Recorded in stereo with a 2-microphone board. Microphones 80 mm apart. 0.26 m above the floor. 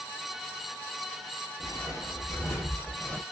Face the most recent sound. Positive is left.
turn(degrees=10)  # may be behind; listen again after turning